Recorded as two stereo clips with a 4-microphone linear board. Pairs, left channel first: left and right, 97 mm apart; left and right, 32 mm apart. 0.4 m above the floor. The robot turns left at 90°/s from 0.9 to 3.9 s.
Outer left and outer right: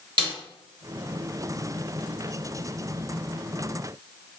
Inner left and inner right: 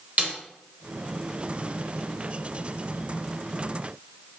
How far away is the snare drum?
About 0.9 m.